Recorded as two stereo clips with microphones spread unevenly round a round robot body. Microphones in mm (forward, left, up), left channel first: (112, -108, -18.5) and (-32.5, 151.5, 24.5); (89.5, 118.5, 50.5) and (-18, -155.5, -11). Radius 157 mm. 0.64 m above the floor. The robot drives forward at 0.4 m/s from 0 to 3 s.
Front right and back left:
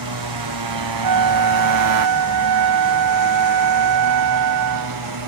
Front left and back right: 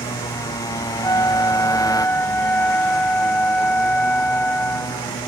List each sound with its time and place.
0.0 s a motorcycle: 145° left; by 5.3 s 150° left
1.0 s a flute: 150° left; by 5.0 s 155° left